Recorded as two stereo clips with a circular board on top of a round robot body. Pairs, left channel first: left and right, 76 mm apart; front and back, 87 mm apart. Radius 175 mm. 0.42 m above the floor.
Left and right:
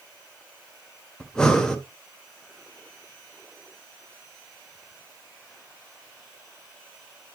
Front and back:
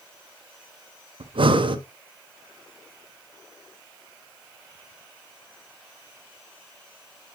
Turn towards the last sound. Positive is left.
turn(degrees=170)